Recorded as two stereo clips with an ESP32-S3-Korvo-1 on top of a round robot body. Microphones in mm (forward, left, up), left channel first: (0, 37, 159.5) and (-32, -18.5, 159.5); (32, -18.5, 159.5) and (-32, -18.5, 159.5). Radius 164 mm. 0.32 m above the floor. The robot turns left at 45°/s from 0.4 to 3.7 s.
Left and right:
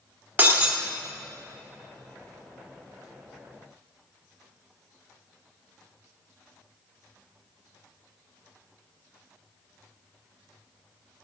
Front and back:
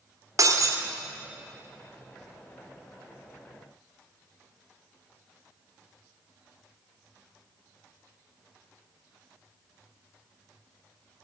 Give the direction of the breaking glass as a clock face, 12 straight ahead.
6 o'clock.